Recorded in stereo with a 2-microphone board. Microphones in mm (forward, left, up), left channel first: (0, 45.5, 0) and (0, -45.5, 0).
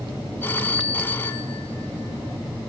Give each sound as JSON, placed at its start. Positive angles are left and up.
{"t": 0.4, "sound": "a phone ringing", "side_deg": 25, "distance_m": 1.4}